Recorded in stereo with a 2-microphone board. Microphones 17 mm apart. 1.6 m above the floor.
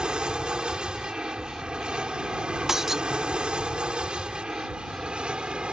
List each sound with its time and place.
0.0 s an aircraft: 65° right (ahead or behind); by 5.7 s 80° right
2.7 s breaking glass: 30° right (ahead or behind)